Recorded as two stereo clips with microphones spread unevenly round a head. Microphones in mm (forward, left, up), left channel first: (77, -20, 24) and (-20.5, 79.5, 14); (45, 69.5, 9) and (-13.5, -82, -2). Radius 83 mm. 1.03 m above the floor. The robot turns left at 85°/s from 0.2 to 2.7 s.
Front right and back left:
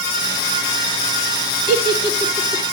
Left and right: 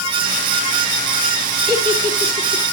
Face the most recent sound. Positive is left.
turn(degrees=-130)